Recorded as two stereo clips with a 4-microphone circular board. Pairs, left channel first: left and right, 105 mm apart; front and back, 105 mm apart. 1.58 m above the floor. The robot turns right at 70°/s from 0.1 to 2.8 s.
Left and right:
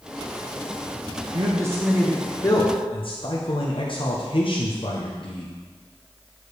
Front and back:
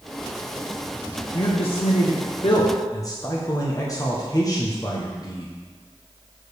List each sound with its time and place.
1.3 s a man speaking: 45° right, 0.9 m; by 5.5 s 55° left, 0.9 m